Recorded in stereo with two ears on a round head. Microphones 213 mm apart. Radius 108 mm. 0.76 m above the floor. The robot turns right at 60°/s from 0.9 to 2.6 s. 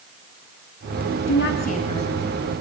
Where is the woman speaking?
120° left, 9.5 m; by 2.6 s 160° right, 9.5 m.